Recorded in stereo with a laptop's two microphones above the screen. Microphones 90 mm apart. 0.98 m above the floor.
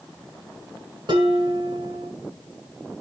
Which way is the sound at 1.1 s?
60° right (ahead or behind).